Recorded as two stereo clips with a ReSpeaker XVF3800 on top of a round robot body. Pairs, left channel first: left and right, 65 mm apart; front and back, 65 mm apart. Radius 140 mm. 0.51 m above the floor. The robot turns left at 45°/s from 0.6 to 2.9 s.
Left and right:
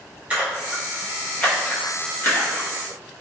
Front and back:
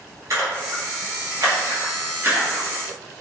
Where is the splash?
155° right, 1.1 m; by 2.7 s 110° left, 1.1 m.